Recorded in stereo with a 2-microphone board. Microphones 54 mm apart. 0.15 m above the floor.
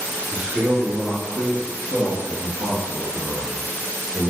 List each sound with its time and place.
0.3 s a man speaking: 15° right (ahead or behind), 1.3 m; by 4.3 s 40° left (ahead or behind), 2.5 m